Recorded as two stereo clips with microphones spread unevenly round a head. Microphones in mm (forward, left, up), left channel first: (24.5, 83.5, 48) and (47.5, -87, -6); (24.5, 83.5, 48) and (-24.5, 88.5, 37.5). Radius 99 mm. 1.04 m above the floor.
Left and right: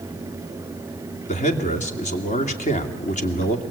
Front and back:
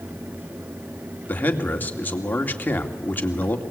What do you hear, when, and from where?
1.3 s a man speaking: 45° left, 2.5 m